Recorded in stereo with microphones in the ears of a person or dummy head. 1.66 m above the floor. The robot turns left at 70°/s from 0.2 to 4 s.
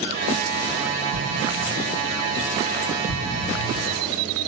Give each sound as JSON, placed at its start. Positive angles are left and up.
{"t": 1.1, "sound": "an explosion", "side_deg": -65, "distance_m": 1.9}